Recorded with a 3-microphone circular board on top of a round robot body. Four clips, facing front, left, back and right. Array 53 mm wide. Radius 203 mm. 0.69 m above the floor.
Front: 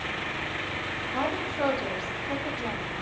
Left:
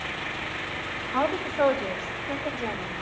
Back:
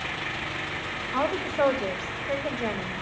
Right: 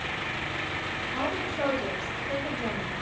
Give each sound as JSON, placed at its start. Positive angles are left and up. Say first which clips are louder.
{"t": 1.1, "sound": "a woman speaking", "louder": "left 7 dB, back 4 dB", "azimuth_deg": 145, "distance_m": 5.5}